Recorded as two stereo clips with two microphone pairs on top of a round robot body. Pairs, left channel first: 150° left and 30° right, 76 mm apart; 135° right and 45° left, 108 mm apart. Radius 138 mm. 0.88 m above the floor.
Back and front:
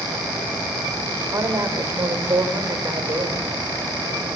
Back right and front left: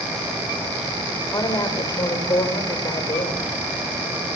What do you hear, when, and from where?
1.3 s a woman speaking: 80° right, 3.5 m